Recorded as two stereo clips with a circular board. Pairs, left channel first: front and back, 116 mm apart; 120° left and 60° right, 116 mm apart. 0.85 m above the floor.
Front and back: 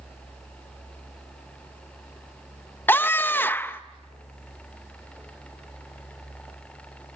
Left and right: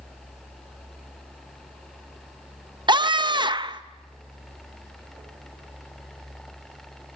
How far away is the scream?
About 0.8 m.